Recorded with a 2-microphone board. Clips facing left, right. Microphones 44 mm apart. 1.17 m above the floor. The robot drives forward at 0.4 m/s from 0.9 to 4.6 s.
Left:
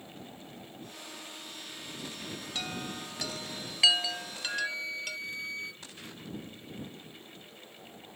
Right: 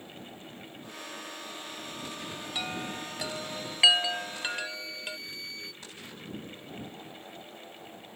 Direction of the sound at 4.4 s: 35° left (ahead or behind).